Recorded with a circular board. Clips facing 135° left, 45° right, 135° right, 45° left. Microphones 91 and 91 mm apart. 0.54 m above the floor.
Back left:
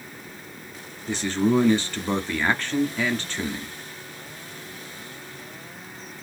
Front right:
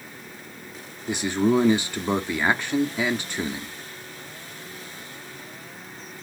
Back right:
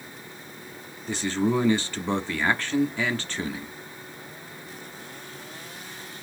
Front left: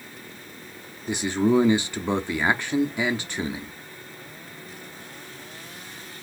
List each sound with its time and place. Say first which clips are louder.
1.1 s a man speaking: front right 1 dB, front left 3 dB; 5° left, 0.6 m